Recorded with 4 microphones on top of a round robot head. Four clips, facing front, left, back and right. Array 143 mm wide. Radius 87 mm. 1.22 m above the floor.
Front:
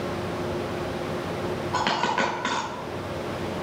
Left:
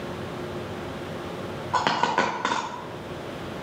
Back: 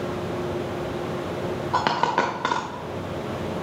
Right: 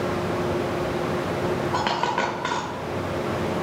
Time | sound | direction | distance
1.7 | a dropped coin | 160° left | 1.0 m